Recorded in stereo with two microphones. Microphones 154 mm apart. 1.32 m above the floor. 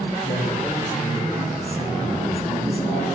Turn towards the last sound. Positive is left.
turn(degrees=40)  # may be behind; listen again after turning